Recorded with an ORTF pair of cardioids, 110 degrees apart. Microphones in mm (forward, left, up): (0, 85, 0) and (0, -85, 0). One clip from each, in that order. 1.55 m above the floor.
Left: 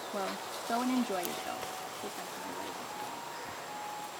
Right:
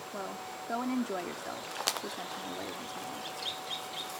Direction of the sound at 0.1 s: 25° left.